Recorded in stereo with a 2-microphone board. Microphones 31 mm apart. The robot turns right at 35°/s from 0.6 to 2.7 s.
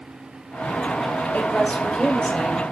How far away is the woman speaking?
About 4.5 m.